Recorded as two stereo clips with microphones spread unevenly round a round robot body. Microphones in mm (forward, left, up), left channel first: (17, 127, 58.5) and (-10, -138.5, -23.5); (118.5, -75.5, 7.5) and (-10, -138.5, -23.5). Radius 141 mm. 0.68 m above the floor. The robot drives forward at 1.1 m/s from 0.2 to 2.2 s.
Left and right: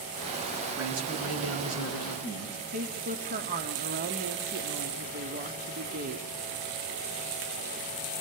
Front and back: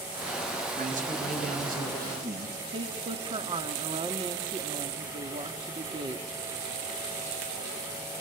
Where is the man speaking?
130° right, 6.5 m; by 2.6 s 140° right, 7.5 m.